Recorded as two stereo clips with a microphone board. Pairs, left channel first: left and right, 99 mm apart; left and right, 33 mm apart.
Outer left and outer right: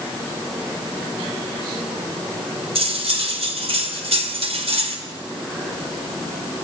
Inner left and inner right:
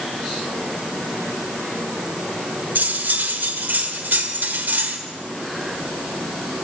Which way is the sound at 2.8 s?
80° right.